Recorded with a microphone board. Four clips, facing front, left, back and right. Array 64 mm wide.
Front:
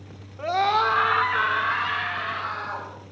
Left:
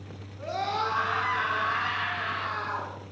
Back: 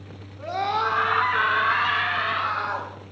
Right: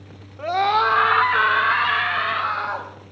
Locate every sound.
0.4 s a scream: 60° right, 2.0 m; by 2.9 s 115° right, 4.5 m